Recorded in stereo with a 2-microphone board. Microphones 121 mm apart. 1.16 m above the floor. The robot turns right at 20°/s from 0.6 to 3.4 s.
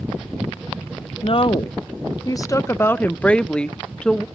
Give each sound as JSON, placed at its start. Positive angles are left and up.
{"t": 1.2, "sound": "a woman speaking", "azimuth_deg": 130, "distance_m": 0.6}